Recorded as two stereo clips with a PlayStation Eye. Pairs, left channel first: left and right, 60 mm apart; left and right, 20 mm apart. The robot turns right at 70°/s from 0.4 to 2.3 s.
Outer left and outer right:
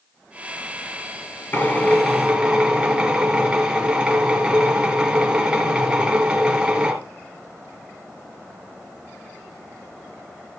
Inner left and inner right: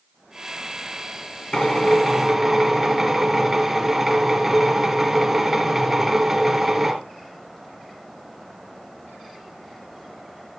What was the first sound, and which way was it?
A drill, 140° left.